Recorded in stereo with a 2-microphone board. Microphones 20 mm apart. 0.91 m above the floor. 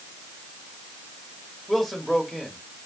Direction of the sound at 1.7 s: 5° left (ahead or behind).